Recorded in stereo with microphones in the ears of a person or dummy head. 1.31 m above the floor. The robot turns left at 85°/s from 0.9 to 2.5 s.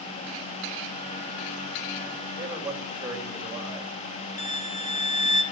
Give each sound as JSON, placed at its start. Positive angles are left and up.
{"t": 2.4, "sound": "a man speaking", "side_deg": -25, "distance_m": 6.0}
{"t": 4.4, "sound": "a violin", "side_deg": 40, "distance_m": 2.0}